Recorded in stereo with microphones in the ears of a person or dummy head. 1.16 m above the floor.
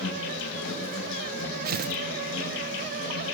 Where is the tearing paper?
45° right (ahead or behind), 0.6 m.